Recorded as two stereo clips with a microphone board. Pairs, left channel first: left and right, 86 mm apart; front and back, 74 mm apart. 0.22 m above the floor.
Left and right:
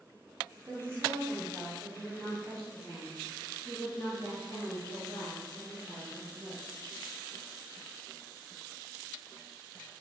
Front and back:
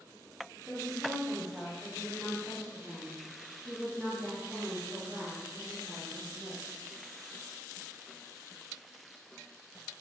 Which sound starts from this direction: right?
A woman speaking, at 0.7 s.